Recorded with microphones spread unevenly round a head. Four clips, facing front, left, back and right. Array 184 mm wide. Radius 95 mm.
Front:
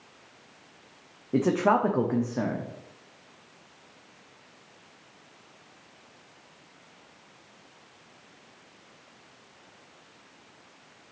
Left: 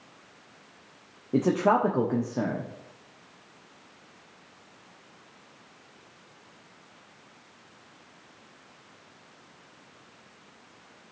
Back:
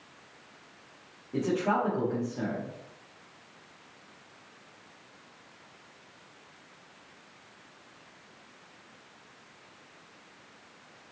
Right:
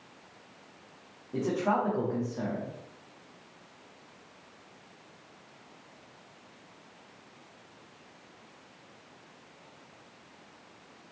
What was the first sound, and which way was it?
A man speaking, 65° left.